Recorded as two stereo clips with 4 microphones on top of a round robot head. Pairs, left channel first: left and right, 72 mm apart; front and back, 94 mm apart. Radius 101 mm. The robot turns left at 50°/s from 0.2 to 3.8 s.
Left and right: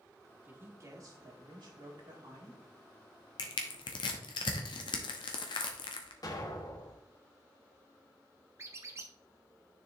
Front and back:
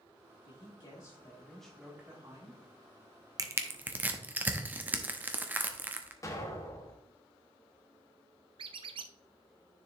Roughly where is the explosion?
Ahead left.